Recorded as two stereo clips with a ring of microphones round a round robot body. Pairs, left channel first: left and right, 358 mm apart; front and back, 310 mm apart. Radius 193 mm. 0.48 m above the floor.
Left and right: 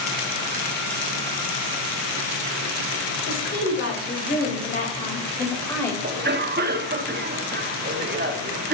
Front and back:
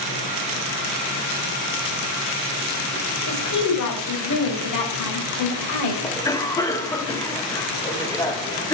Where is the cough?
70° right, 1.1 m.